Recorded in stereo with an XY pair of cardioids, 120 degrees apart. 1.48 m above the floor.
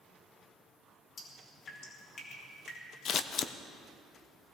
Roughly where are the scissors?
Ahead left.